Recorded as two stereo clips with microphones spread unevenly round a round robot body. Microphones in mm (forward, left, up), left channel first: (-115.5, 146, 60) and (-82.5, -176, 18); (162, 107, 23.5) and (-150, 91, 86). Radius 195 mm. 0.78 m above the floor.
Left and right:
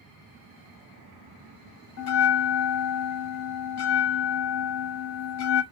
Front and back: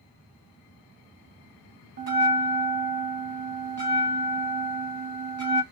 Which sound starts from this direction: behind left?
A bell, at 2.0 s.